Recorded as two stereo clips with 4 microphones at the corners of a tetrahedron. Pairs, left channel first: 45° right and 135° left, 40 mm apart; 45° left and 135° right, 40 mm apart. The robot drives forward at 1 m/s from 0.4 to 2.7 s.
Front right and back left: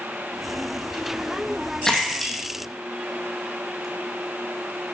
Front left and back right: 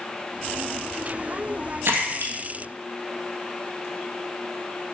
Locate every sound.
1.9 s a splash: 120° right, 2 m; by 3.9 s 135° right, 2.5 m